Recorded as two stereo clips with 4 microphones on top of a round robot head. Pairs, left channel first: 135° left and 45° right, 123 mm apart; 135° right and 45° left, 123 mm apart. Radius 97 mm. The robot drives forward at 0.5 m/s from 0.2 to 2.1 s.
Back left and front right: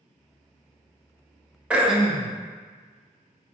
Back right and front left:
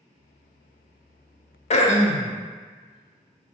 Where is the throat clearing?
120° right, 0.5 m; by 2.3 s 140° right, 0.6 m.